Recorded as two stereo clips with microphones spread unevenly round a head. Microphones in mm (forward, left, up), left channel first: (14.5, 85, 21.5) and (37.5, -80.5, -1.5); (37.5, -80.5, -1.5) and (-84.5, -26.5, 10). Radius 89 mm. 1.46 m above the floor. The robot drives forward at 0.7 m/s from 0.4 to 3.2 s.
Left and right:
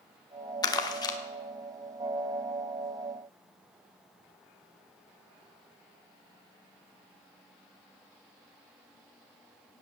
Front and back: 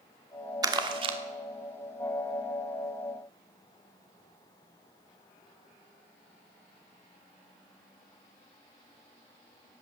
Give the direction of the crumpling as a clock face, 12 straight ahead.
8 o'clock.